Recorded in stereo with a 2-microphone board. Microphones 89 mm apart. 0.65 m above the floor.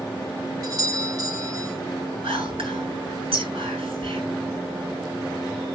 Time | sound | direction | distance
0.6 | a doorbell | 45° right (ahead or behind) | 2 m
2.2 | whispering | 85° right | 8 m